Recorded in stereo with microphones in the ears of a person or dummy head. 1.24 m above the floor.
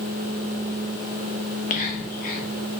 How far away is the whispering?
About 0.6 m.